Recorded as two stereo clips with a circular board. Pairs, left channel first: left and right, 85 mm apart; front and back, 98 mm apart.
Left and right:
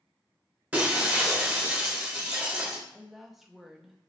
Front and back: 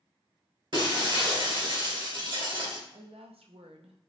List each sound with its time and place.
0.7 s breaking glass: 160° right, 1.6 m
2.9 s a woman speaking: straight behind, 0.5 m